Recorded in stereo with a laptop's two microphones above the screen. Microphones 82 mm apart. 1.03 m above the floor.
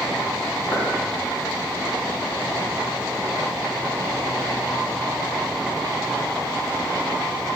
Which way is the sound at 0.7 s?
75° left (ahead or behind).